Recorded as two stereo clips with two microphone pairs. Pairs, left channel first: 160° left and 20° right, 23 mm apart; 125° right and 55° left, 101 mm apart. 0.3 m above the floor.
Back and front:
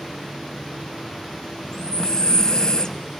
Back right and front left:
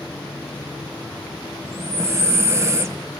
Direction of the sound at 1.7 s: 110° left.